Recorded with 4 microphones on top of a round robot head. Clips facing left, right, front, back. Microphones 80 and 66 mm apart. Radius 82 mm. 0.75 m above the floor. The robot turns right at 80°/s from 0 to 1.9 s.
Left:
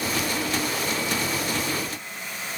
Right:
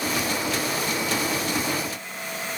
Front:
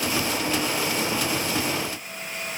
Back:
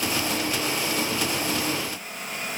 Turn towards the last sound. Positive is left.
No sound to turn to.